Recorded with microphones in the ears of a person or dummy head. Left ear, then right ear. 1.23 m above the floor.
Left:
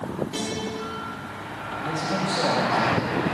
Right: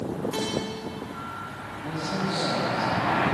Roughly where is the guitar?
Centre.